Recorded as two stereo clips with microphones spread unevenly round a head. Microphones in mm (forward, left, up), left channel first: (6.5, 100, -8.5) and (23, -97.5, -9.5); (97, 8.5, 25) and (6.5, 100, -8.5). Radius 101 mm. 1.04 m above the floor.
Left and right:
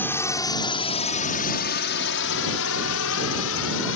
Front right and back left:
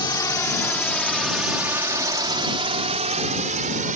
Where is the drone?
15° left; by 4.0 s 120° left.